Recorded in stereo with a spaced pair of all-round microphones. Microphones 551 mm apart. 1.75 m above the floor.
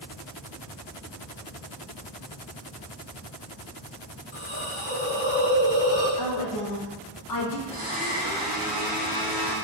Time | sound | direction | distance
4.3 | a hiss | 45° left (ahead or behind) | 1.6 m
6.2 | a woman speaking | 35° left (ahead or behind) | 0.6 m
7.7 | a blender | 15° right (ahead or behind) | 1.3 m